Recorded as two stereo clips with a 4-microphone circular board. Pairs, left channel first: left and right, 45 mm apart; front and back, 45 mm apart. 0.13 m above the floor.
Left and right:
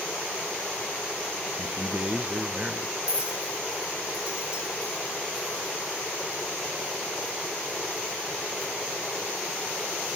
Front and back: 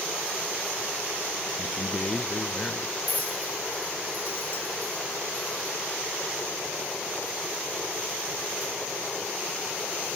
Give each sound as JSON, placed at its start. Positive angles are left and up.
{"t": 1.6, "sound": "a man speaking", "azimuth_deg": -45, "distance_m": 1.6}
{"t": 3.1, "sound": "a clink", "azimuth_deg": -35, "distance_m": 1.0}